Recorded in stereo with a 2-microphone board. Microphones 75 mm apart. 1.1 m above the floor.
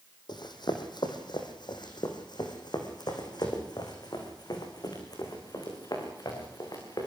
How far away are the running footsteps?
About 3.5 m.